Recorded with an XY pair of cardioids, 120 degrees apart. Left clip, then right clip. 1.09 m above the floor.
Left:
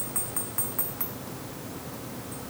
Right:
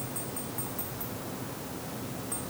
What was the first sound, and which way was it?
Only background noise.